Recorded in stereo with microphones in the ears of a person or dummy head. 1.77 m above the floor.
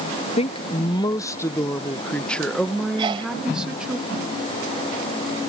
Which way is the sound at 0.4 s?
30° left (ahead or behind).